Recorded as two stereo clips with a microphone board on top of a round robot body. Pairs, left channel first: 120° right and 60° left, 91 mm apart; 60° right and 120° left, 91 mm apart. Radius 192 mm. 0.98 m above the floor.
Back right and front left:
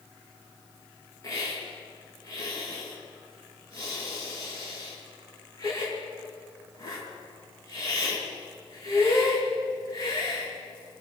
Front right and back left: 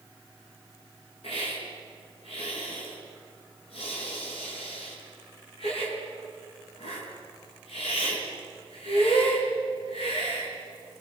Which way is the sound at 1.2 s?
65° right.